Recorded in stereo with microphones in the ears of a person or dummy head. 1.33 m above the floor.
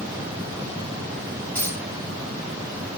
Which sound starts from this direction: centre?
A dropped coin, at 1.6 s.